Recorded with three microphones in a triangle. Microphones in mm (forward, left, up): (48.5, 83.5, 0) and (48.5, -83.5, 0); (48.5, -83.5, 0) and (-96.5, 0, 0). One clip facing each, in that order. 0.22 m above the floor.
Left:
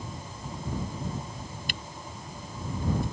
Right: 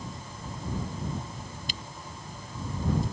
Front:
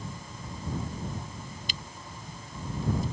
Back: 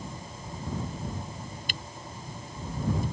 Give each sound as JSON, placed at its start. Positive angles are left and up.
{"t": 1.7, "sound": "a camera shutter", "azimuth_deg": 115}